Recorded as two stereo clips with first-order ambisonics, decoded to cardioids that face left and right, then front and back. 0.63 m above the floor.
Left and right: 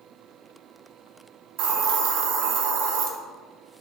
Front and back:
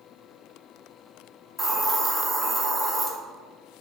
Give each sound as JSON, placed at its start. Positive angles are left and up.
{"t": 1.6, "sound": "a hiss", "azimuth_deg": -95, "distance_m": 0.5}